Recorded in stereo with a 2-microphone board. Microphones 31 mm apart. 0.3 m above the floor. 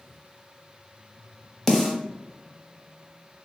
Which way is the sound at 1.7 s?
5° left (ahead or behind).